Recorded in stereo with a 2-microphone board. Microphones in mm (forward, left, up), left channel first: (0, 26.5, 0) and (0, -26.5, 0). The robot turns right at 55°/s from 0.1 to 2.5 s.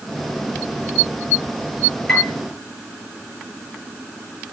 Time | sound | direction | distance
2.1 | a piano | 10° left (ahead or behind) | 6 m